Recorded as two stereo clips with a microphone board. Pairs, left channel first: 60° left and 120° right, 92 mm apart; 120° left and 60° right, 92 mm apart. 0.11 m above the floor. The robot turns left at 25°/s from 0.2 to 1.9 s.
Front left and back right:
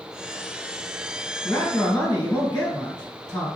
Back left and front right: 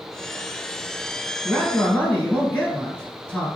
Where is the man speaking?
65° left, 1.4 m; by 3.5 s 55° left, 1.4 m.